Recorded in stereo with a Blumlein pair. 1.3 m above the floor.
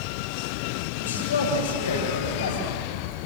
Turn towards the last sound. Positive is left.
turn(degrees=65)